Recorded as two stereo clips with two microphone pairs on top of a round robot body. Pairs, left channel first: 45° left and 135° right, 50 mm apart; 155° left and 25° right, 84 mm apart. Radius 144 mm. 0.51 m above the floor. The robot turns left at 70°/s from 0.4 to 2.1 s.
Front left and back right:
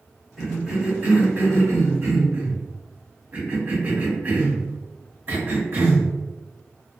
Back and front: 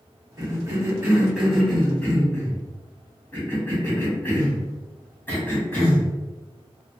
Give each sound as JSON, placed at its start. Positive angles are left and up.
{"t": 0.4, "sound": "a cough", "azimuth_deg": -50, "distance_m": 1.6}